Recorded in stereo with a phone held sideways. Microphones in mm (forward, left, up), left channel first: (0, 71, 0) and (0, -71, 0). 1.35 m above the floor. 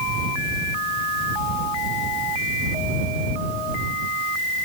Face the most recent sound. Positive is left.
No sound to turn to.